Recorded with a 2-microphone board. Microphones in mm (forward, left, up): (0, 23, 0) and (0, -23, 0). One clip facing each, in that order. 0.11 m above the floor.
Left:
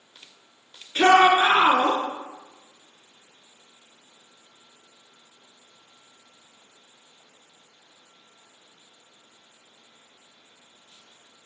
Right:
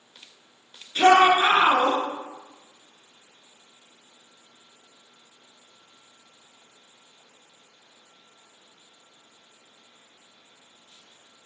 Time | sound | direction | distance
0.9 | a shout | 30° left (ahead or behind) | 1.2 m